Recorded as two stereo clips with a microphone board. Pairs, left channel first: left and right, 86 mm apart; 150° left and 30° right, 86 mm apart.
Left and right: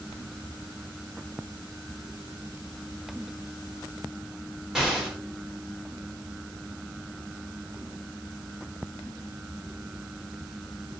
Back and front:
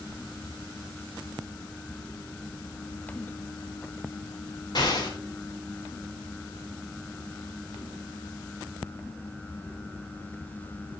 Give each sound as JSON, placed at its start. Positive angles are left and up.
{"t": 4.8, "sound": "an explosion", "azimuth_deg": -175, "distance_m": 1.3}